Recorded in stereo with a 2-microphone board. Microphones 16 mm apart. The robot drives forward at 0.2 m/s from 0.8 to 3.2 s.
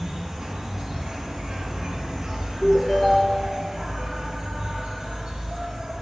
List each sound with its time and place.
0.0 s an insect: 60° right (ahead or behind), 0.7 m
2.6 s a ringtone: 70° left (ahead or behind), 1.7 m